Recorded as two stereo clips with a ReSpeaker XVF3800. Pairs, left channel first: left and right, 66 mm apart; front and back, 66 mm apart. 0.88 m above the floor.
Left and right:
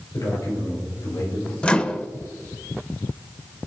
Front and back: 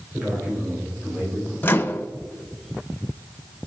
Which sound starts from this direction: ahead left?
A microwave, at 1.6 s.